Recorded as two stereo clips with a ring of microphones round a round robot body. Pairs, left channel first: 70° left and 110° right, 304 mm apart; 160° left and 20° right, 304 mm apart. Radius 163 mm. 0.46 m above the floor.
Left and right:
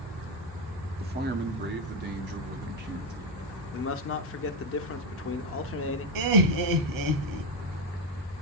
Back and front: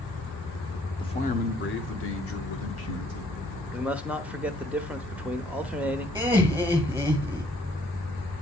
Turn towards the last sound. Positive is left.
turn(degrees=-105)